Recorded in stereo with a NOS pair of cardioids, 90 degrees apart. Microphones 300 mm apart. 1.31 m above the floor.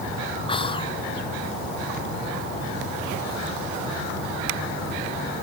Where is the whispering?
15° left, 0.8 m.